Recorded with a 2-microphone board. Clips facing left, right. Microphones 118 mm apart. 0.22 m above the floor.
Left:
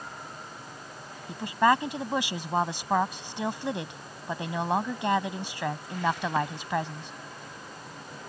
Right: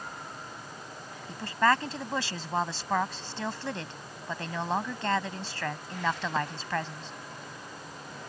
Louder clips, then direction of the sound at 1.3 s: Left 3 dB; 15° left (ahead or behind).